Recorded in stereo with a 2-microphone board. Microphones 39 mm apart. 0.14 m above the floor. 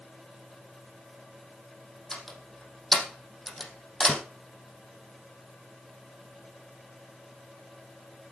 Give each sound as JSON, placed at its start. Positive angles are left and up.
{"t": 2.1, "sound": "a door slam", "side_deg": 10, "distance_m": 4.0}